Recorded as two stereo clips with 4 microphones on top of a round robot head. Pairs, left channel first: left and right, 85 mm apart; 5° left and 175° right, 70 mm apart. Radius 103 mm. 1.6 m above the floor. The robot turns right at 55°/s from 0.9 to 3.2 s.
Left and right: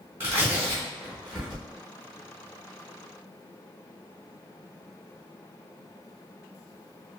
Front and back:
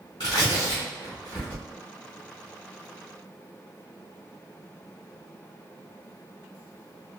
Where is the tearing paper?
35° right, 0.9 m; by 1.6 s 5° left, 0.9 m.